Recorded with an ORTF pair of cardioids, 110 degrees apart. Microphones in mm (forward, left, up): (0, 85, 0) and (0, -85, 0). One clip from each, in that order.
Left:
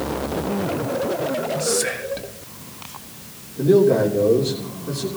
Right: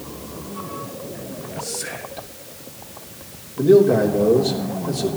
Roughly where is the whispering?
Ahead left.